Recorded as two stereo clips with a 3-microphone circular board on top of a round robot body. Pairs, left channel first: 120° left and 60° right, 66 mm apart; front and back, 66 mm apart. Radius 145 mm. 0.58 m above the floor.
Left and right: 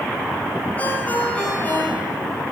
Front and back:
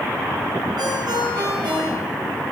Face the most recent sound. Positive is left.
turn(degrees=-170)